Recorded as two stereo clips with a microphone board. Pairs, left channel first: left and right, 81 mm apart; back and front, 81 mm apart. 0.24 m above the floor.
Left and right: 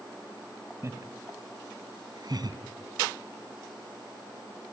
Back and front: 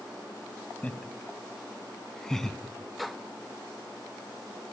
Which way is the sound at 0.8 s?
115° right.